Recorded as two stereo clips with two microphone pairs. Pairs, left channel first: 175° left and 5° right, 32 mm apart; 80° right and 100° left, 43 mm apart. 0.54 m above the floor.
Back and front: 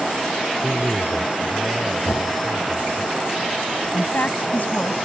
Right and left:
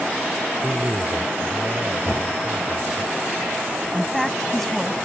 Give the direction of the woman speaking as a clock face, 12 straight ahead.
6 o'clock.